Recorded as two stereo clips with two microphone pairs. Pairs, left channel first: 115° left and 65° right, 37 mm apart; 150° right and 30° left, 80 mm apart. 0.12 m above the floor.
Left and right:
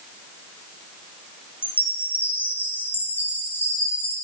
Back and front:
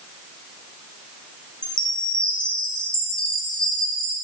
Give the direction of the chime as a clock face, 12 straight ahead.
8 o'clock.